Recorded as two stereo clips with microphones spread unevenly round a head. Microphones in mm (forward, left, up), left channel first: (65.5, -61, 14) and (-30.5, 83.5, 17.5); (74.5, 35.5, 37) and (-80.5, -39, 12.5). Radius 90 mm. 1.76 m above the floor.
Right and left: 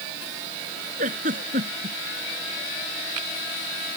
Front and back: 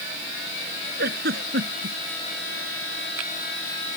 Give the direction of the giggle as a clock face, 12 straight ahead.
6 o'clock.